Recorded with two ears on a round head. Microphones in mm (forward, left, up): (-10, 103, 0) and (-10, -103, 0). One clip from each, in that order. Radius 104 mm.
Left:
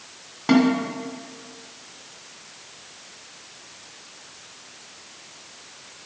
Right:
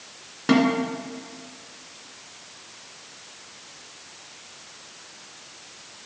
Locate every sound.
0.5 s a snare drum: 5° left (ahead or behind), 1.7 m